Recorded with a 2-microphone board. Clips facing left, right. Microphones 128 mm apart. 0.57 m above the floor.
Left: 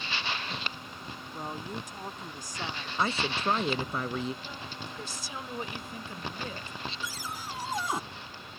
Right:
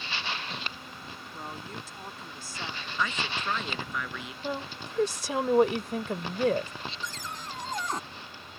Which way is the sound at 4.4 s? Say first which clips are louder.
Right 7 dB; 65° right (ahead or behind).